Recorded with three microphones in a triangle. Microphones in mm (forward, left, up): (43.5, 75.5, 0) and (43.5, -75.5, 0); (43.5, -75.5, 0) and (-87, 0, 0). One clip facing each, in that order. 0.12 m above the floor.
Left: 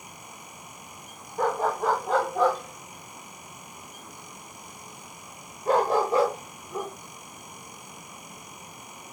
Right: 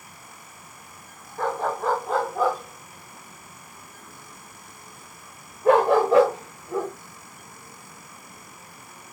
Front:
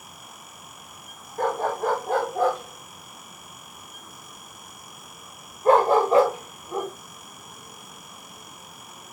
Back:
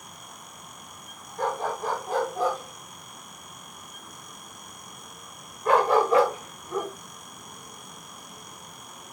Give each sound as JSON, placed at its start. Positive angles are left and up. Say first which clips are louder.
{"t": 1.4, "sound": "a dog barking", "louder": "left 1 dB, front 4 dB", "azimuth_deg": 10, "distance_m": 5.0}